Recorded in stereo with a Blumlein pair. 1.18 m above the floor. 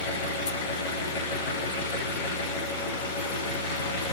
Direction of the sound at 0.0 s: 50° left.